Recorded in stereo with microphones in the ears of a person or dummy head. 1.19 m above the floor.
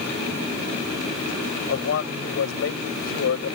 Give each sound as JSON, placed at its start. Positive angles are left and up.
{"t": 1.7, "sound": "a man speaking", "side_deg": 65}